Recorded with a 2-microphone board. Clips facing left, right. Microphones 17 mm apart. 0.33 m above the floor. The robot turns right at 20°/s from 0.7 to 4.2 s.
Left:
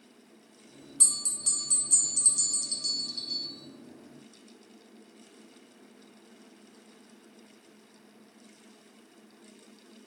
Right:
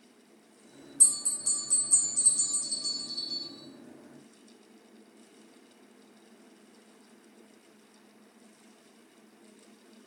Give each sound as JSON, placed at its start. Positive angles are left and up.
{"t": 1.0, "sound": "a bell", "azimuth_deg": 120, "distance_m": 1.5}